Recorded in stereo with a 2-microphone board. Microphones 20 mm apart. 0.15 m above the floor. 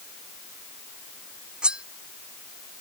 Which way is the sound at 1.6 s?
50° right (ahead or behind).